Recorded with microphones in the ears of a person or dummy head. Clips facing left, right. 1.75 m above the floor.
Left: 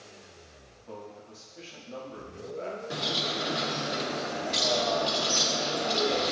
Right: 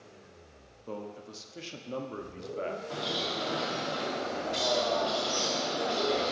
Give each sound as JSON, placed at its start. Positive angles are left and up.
{"t": 0.9, "sound": "a man speaking", "side_deg": -55, "distance_m": 0.9}
{"t": 2.9, "sound": "a bird", "side_deg": 35, "distance_m": 1.2}